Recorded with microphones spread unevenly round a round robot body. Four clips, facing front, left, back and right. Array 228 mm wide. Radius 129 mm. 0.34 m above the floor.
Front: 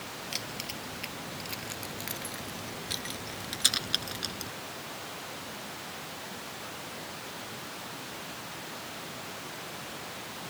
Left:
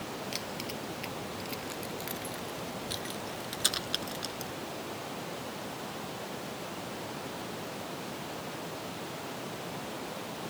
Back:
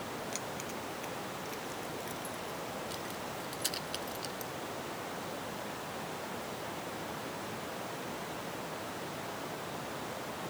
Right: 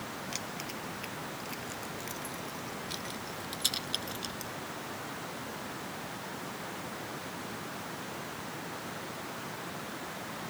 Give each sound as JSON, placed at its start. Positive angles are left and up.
{"t": 0.3, "sound": "keys jangling", "azimuth_deg": 10}